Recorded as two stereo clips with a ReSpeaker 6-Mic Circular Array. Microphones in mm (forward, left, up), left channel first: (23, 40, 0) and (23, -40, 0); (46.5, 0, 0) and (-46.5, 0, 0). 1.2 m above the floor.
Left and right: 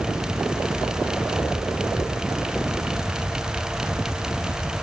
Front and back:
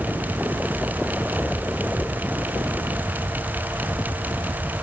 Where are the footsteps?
No footsteps in this recording.